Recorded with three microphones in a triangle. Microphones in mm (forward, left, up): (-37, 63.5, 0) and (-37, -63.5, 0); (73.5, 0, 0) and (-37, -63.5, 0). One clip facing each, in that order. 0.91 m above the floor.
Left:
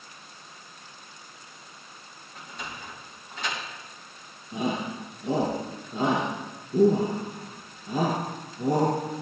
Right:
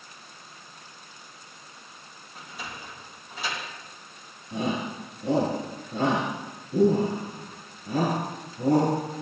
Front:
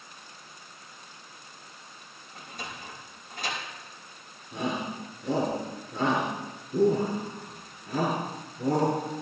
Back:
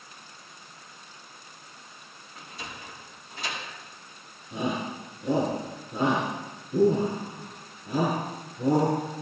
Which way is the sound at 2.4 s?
10° right.